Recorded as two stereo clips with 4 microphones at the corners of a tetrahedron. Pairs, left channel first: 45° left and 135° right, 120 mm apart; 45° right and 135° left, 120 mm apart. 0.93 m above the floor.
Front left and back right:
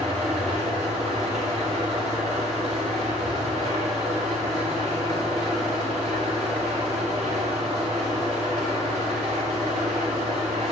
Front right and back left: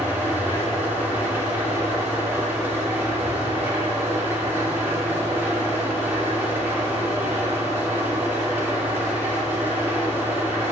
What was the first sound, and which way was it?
An engine running, 150° right.